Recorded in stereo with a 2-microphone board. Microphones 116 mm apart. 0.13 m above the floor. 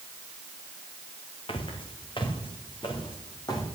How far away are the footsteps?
About 2.5 m.